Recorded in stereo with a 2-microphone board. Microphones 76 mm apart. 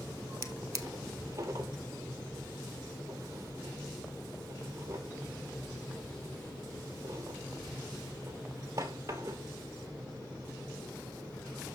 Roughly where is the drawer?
Right.